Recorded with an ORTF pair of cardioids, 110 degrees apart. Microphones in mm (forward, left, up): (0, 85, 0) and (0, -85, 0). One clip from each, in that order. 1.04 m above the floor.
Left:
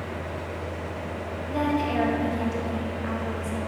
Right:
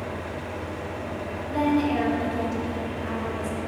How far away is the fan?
About 2.0 m.